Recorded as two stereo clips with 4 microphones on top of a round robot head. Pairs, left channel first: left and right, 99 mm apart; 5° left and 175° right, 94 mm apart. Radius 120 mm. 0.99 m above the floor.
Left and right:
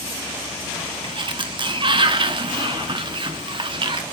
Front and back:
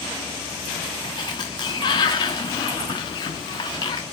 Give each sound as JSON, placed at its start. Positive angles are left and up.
{"t": 1.0, "sound": "a sliding door", "azimuth_deg": -55, "distance_m": 0.8}